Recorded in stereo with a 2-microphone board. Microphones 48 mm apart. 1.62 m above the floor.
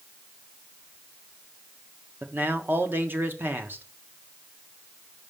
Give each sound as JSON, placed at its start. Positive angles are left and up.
{"t": 2.2, "sound": "a man speaking", "side_deg": -45, "distance_m": 0.9}